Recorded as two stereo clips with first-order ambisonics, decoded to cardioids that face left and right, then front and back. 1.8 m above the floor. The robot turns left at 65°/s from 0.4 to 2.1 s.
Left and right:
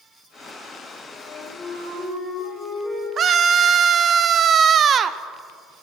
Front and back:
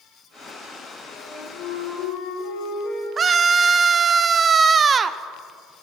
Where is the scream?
130° right, 0.5 m.